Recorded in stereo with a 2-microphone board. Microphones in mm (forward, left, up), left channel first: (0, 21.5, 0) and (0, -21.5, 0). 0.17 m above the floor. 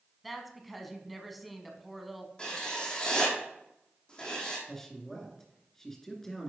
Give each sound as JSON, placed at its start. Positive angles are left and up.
{"t": 0.2, "sound": "a woman speaking", "side_deg": 0, "distance_m": 1.1}
{"t": 2.4, "sound": "writing", "side_deg": 20, "distance_m": 2.5}
{"t": 4.7, "sound": "a man speaking", "side_deg": 15, "distance_m": 2.0}